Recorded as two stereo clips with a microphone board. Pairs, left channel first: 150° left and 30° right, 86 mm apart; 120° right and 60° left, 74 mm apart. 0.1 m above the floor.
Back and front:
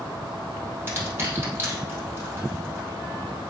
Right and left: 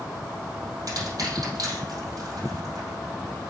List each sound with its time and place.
0.9 s crushing: 30° left, 3.5 m